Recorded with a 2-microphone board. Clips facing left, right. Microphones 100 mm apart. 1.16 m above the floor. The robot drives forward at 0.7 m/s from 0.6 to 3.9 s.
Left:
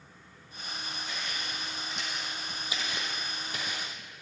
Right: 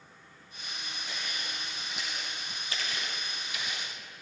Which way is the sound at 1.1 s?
15° right (ahead or behind).